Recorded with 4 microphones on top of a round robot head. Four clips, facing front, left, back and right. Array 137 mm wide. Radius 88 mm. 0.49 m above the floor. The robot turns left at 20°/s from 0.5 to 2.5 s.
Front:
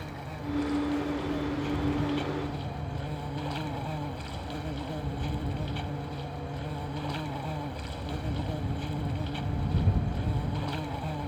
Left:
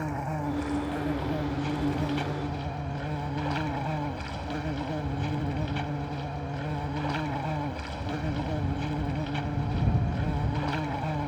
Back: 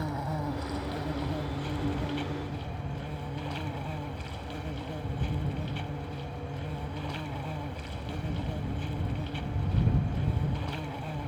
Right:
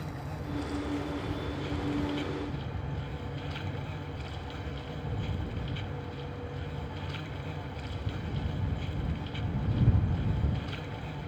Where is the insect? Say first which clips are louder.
Left 9 dB, back 5 dB; 120° left; by 11.3 s 80° left.